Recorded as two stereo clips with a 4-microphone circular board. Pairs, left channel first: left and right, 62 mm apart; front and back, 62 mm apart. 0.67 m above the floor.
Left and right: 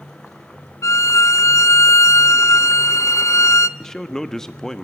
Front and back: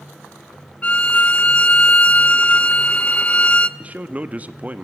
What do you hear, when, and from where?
0.8 s a violin: 65° left, 0.6 m
3.8 s a man speaking: 165° left, 0.9 m